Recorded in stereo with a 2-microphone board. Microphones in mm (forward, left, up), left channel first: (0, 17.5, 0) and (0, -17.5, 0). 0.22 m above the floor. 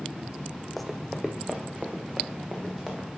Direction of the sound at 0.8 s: Centre (ahead or behind).